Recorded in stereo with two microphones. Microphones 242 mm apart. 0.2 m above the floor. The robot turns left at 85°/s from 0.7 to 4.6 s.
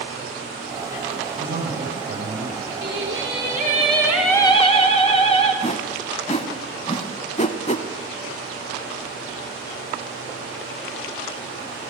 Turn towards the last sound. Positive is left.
turn(degrees=30)  # may be behind; listen again after turning